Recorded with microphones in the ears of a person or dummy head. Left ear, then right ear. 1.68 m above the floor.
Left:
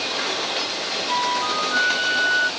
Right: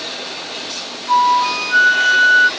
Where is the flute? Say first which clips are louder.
Right 10 dB; 75° right (ahead or behind).